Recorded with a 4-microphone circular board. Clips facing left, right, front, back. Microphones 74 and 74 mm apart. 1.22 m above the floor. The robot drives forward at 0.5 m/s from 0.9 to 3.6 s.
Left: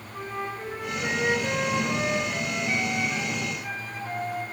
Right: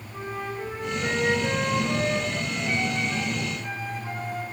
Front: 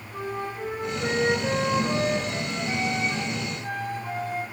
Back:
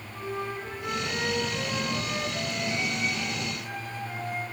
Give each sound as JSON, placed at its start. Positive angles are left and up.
{"t": 0.1, "sound": "a flute", "azimuth_deg": 0, "distance_m": 4.5}